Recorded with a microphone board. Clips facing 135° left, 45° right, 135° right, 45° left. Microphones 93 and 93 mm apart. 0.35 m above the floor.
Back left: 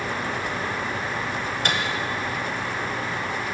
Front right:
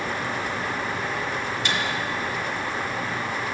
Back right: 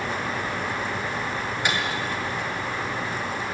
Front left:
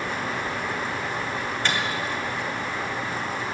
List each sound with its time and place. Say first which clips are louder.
1.6 s a microwave: back left 2 dB, even; 150° left, 1.4 m